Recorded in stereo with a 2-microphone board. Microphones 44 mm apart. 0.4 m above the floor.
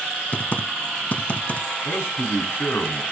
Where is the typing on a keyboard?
35° left (ahead or behind), 0.8 m.